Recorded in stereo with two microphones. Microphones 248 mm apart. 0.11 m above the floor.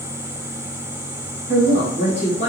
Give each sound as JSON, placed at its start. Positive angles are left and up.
{"t": 1.5, "sound": "a woman speaking", "side_deg": 25, "distance_m": 1.8}